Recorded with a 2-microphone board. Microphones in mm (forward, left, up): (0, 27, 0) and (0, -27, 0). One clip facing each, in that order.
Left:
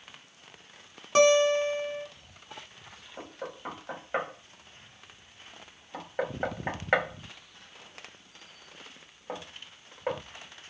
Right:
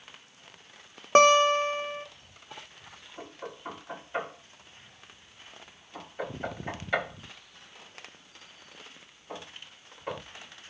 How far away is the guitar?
About 0.6 m.